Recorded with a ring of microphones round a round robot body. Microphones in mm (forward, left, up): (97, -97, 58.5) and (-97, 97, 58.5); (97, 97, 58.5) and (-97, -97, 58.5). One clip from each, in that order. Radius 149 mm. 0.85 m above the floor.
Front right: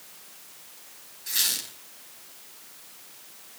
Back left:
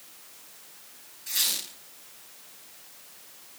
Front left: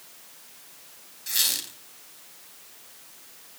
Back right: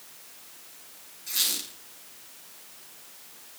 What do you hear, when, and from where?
1.3 s a squeak: 35° left, 4 m